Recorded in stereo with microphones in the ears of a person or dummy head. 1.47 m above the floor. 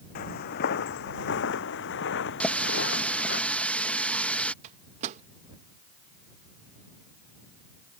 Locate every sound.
0.1 s footsteps: 50° left (ahead or behind); by 3.4 s 70° left (ahead or behind)
2.4 s a running tap: 5° left (ahead or behind)
4.6 s a microwave: 40° right (ahead or behind)